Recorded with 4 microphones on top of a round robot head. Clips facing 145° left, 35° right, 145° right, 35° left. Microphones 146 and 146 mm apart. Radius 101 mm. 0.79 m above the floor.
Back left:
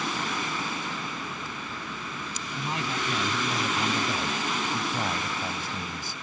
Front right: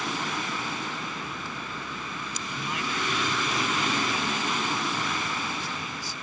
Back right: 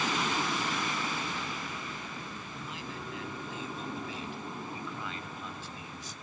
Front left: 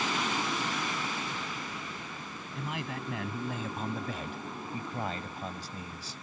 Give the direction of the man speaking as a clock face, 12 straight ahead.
9 o'clock.